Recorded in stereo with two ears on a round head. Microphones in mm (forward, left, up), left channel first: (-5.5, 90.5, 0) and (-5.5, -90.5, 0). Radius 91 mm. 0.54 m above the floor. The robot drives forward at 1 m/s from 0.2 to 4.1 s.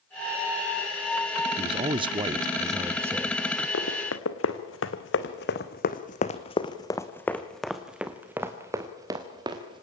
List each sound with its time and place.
1.6 s a man speaking: 25° right (ahead or behind), 0.8 m; by 3.4 s 10° right (ahead or behind), 1.7 m
3.7 s running footsteps: 75° left (ahead or behind), 2.5 m; by 9.8 s 25° right (ahead or behind), 3 m